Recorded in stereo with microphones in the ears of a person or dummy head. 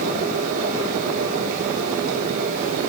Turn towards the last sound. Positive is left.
turn(degrees=-45)  # may be behind; listen again after turning